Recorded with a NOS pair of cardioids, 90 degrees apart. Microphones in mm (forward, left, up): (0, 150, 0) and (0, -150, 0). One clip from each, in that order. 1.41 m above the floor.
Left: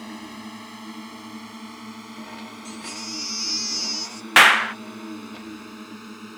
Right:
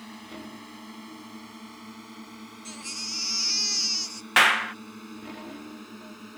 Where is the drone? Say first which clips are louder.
Left 5 dB; 40° left; by 6.4 s 35° left.